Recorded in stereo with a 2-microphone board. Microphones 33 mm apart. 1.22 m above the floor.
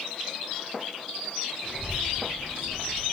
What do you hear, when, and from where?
1.6 s a child speaking: 40° right (ahead or behind), 1.9 m; by 3.0 s 70° right (ahead or behind), 1.0 m